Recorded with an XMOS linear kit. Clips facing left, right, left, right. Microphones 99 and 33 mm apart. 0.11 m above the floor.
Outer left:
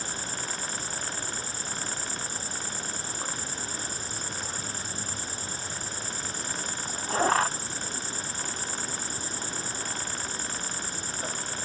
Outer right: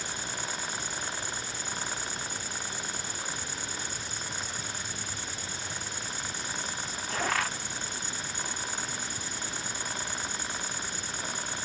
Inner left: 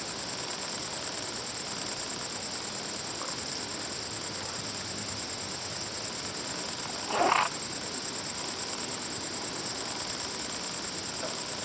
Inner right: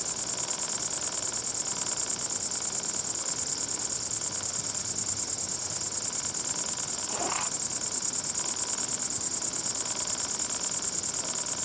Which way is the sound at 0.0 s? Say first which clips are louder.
Outer left 1 dB, inner left 2 dB; 35° left (ahead or behind).